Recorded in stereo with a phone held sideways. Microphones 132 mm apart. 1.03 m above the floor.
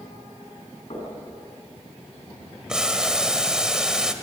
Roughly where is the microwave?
No microwave in this recording.